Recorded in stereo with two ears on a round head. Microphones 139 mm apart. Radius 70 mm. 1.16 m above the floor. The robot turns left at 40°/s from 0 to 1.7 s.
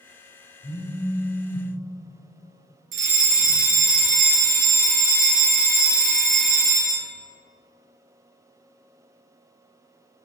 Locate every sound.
0.6 s a phone buzzing: 145° left, 2.5 m; by 1.7 s 100° left, 2.5 m
2.9 s a fire alarm: 60° right (ahead or behind), 3 m